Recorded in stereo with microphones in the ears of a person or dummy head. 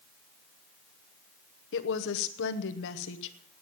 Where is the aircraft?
No aircraft in this recording.